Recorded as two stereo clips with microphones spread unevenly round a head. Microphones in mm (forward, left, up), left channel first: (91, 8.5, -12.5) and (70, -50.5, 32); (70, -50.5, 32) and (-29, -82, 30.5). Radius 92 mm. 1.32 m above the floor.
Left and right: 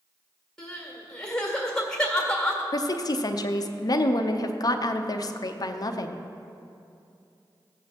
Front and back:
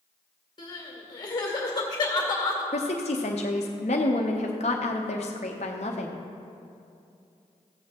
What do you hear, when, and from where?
0.6 s crying: 25° right, 1.9 m
2.7 s a woman speaking: 60° left, 0.7 m